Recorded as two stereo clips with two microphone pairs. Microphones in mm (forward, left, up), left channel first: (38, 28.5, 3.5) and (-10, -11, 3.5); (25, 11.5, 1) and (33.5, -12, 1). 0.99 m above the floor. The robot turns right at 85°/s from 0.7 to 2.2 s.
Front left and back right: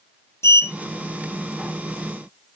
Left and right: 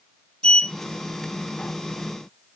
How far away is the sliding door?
About 0.6 m.